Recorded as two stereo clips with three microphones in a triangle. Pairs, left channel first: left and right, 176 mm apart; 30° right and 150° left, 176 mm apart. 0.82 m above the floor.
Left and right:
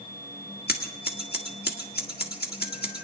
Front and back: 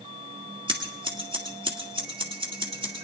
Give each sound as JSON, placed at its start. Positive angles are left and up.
{"t": 0.7, "sound": "scissors", "azimuth_deg": 95, "distance_m": 1.5}